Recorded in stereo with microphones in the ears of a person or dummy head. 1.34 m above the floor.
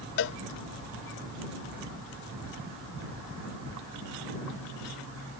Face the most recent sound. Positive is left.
turn(degrees=55)  # may be behind; listen again after turning